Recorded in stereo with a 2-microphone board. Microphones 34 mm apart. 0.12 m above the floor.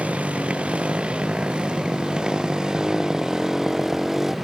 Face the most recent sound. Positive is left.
turn(degrees=-10)  # may be behind; listen again after turning